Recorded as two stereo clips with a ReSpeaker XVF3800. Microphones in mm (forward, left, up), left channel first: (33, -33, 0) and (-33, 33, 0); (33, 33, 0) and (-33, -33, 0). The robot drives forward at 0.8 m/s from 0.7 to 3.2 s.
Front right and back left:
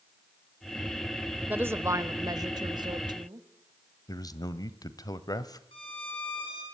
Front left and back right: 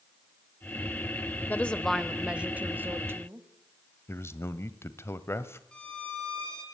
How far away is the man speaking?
About 1.4 m.